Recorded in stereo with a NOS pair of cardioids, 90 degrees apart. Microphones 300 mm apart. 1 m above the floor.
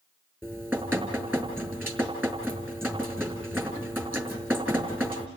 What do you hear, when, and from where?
0.4 s dripping: 5° right, 5 m